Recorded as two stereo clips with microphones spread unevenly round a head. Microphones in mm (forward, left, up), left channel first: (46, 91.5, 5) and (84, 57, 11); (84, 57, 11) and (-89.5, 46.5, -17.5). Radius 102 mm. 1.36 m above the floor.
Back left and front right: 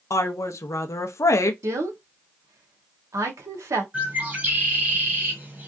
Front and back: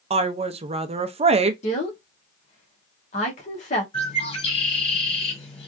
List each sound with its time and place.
0.1 s a woman speaking: 135° left, 0.5 m
1.6 s a woman speaking: 50° right, 0.9 m
3.9 s a bird: 15° right, 1.5 m